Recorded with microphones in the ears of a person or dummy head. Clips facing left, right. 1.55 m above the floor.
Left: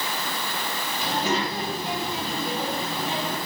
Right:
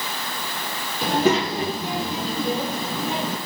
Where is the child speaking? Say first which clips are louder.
Right 7 dB; 45° right (ahead or behind), 1.3 m; by 3.4 s 80° right, 1.8 m.